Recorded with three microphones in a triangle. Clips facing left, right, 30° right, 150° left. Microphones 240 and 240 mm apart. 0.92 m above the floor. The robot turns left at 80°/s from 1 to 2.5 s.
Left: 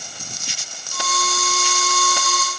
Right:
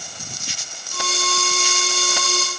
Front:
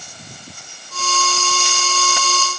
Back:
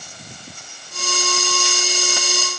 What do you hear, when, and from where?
Only background noise.